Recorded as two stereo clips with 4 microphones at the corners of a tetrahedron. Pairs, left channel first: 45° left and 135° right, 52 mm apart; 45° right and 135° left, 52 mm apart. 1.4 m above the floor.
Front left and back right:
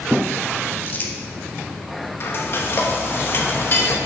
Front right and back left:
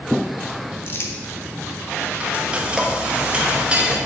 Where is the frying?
70° left, 0.9 m.